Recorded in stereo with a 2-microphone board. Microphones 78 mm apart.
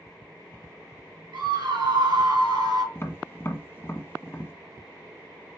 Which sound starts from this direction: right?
A scream, at 1.3 s.